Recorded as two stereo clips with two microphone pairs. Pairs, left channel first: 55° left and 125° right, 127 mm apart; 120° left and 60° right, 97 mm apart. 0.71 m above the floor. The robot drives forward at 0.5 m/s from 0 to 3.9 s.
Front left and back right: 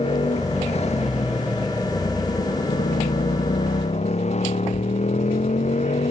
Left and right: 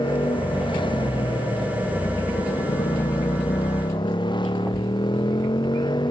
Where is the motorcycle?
90° left; by 6.1 s 85° left.